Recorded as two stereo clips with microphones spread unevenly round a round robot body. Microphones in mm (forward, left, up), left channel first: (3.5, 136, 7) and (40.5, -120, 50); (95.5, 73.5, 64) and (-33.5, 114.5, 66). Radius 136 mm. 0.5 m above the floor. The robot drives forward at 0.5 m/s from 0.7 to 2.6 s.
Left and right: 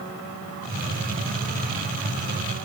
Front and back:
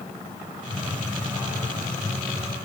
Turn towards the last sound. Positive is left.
No sound to turn to.